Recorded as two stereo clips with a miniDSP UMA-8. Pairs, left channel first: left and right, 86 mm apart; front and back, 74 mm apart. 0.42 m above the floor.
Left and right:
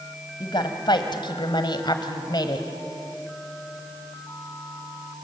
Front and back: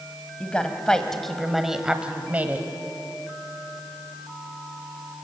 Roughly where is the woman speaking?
Left.